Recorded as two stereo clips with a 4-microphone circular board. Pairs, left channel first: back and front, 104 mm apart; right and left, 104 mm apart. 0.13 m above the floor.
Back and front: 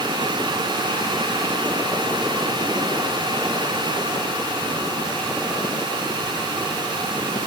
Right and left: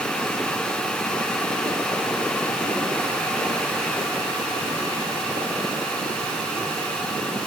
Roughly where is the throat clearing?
I don't hear throat clearing.